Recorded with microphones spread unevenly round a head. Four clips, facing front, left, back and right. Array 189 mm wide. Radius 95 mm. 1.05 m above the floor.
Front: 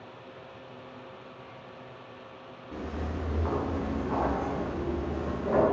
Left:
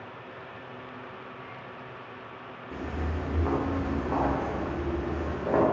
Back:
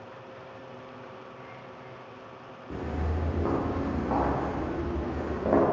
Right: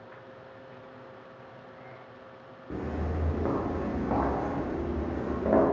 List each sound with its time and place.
2.7 s footsteps: 135° right, 4 m; by 5.6 s 140° right, 5.5 m